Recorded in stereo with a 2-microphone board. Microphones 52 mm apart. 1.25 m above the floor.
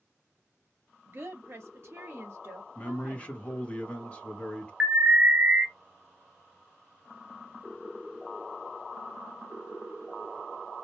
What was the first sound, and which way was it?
A woman speaking, 40° right (ahead or behind).